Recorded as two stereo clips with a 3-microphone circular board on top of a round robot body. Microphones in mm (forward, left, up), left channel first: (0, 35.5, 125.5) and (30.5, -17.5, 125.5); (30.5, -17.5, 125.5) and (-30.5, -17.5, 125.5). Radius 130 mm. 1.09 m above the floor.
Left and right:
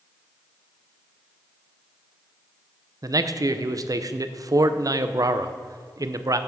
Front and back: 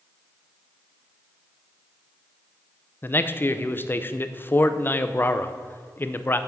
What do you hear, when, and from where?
3.0 s a man speaking: 55° right, 1.0 m